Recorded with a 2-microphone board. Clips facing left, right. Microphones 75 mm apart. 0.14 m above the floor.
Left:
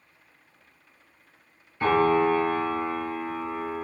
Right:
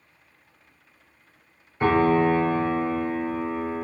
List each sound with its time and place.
1.8 s a piano: 20° right (ahead or behind), 1.4 m